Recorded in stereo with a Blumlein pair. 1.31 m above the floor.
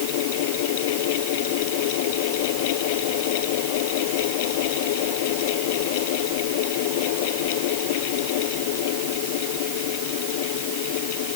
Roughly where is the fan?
Ahead left.